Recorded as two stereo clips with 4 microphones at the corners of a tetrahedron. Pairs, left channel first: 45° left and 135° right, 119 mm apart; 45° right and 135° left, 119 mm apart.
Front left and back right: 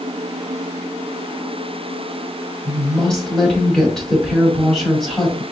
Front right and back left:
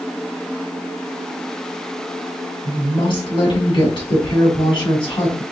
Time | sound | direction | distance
2.6 | a woman speaking | 40° right | 2 m